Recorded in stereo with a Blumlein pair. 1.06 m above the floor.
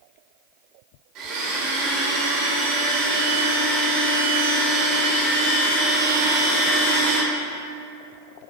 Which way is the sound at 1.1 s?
35° right.